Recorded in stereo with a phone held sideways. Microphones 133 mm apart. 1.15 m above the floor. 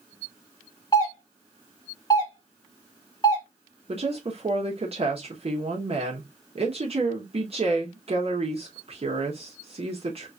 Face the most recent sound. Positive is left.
turn(degrees=-50)  # may be behind; listen again after turning